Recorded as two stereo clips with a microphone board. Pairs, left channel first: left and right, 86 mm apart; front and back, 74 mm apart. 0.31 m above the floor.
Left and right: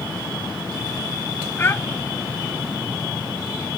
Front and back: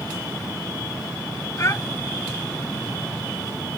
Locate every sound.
1.6 s a child speaking: 35° left